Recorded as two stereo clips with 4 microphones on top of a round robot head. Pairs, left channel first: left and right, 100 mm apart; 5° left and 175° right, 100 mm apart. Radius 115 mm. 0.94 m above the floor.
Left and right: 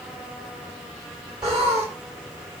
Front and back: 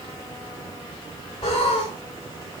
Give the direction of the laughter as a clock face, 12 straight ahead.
1 o'clock.